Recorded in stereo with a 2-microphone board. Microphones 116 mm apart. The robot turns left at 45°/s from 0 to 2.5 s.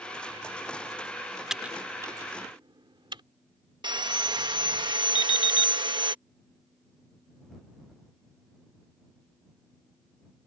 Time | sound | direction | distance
1.5 | typing on a keyboard | 5° right (ahead or behind) | ?
3.8 | sawing | 45° right (ahead or behind) | ?
5.2 | an alarm clock | 45° left (ahead or behind) | ?